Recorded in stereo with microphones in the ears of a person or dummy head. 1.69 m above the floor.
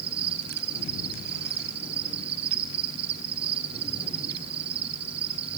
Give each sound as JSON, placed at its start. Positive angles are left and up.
{"t": 0.0, "sound": "an insect", "side_deg": -30, "distance_m": 2.5}